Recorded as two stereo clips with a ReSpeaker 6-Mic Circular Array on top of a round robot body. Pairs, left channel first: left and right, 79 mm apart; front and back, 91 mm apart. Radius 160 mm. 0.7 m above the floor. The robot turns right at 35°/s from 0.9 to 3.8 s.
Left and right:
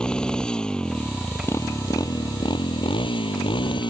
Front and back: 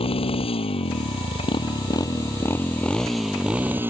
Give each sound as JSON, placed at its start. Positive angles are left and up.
{"t": 0.0, "sound": "a motorcycle", "azimuth_deg": 10}